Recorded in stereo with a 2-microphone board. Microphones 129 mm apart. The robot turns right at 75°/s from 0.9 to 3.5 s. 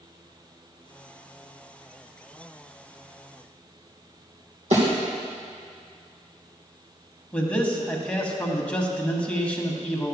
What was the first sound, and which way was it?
A thud, 65° right (ahead or behind).